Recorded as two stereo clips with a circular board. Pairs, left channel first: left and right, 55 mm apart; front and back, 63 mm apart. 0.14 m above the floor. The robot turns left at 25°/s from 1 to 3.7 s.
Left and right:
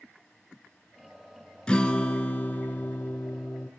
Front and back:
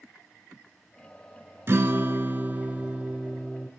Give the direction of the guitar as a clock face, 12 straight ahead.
7 o'clock.